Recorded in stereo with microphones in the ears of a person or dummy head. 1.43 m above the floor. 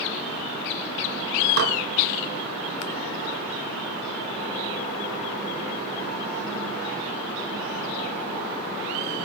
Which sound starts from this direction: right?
Dishes clattering, at 1.6 s.